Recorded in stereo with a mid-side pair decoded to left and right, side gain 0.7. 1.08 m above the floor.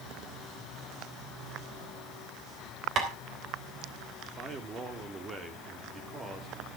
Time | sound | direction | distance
3.0 | tapping | 45° right | 3.5 m
4.3 | a man speaking | 25° right | 2.5 m